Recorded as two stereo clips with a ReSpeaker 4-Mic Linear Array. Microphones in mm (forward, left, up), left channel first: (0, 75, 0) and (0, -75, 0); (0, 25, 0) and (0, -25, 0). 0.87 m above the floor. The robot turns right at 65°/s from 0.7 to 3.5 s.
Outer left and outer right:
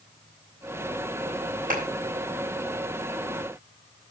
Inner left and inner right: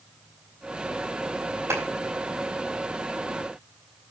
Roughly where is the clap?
Right.